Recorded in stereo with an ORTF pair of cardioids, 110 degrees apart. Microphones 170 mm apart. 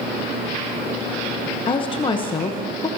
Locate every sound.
1.7 s a woman speaking: 30° left, 0.9 m